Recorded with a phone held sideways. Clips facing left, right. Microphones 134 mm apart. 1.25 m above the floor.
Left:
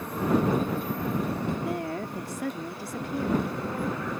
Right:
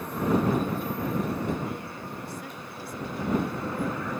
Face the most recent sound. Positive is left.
turn(degrees=75)  # may be behind; listen again after turning